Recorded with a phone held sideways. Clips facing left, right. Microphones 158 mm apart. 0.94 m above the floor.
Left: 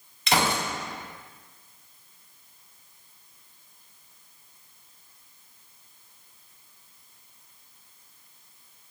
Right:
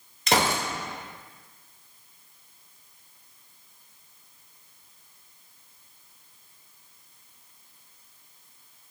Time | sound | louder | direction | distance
0.3 | a gunshot | right 1 dB | 45° right (ahead or behind) | 1.6 m